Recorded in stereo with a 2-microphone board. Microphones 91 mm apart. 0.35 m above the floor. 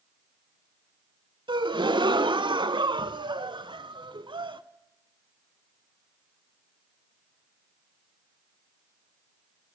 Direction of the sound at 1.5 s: 65° right (ahead or behind).